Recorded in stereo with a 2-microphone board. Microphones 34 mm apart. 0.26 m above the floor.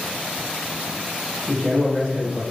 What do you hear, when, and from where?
1.5 s a man speaking: 30° right (ahead or behind), 1.0 m